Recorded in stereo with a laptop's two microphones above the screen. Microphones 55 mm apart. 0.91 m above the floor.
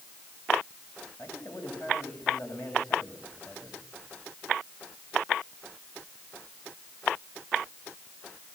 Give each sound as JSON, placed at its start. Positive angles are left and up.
{"t": 1.2, "sound": "a man speaking", "side_deg": 55, "distance_m": 6.0}